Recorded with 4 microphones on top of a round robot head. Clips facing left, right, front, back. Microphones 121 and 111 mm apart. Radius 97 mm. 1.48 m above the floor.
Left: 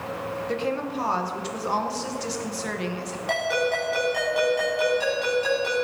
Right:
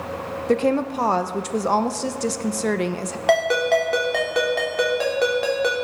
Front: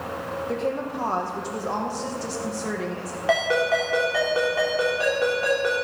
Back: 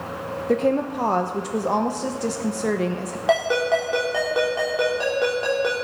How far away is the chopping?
I don't hear chopping.